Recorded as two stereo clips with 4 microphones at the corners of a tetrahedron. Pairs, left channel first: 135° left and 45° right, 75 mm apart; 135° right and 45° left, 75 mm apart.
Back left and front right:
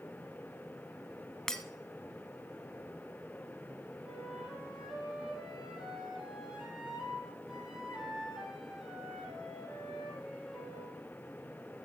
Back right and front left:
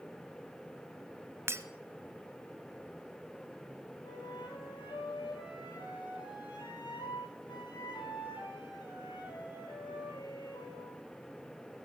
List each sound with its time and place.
1.5 s breaking glass: 55° left, 0.9 m
4.0 s a flute: 130° right, 4.5 m